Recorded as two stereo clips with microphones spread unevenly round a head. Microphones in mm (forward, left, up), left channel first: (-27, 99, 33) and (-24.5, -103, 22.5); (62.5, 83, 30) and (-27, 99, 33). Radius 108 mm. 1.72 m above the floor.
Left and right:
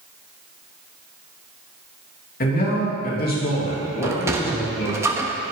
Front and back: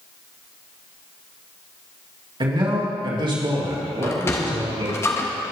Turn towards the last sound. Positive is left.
turn(degrees=-25)